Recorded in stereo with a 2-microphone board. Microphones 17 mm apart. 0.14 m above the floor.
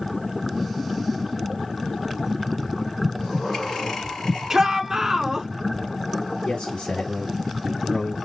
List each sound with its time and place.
3.0 s breathing: 25° left (ahead or behind), 2 m
4.5 s a shout: 30° right (ahead or behind), 1.2 m
6.5 s a man speaking: 50° left (ahead or behind), 2 m